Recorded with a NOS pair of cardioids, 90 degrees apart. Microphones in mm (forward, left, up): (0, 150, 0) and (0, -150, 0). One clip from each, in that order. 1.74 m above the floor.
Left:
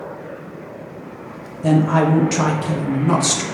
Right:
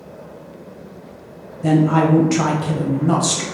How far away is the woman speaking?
About 1.0 m.